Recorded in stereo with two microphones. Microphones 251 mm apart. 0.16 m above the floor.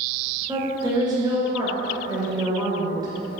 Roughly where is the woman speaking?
Centre.